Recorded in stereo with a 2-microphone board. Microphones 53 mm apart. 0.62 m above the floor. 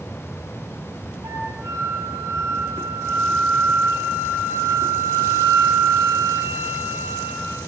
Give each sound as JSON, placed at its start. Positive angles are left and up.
{"t": 1.2, "sound": "a flute", "side_deg": -90, "distance_m": 10.0}